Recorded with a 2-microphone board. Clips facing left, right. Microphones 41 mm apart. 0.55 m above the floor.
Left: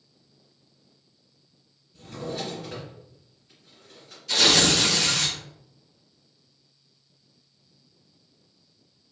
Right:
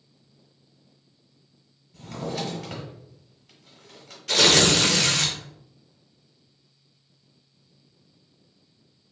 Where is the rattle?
No rattle in this recording.